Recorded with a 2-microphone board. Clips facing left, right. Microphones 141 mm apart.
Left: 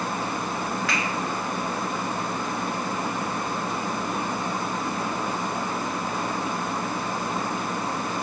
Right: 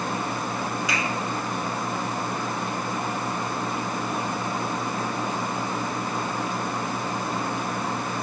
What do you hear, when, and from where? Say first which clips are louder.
0.9 s a finger snap: even; 15° right (ahead or behind), 1.6 m